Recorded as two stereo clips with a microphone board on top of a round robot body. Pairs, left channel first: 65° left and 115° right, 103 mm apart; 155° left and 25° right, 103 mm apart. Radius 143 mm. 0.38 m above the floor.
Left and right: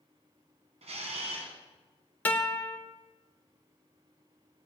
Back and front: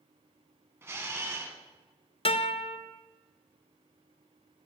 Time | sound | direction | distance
0.8 | a camera shutter | 90° right | 1.3 m
2.2 | a guitar | 140° left | 1.0 m